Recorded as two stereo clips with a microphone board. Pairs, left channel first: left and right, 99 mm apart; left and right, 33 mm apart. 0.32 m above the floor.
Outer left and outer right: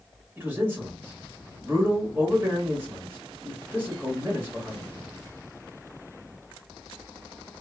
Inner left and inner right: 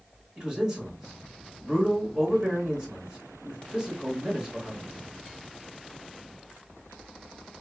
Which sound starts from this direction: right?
A man speaking, at 0.4 s.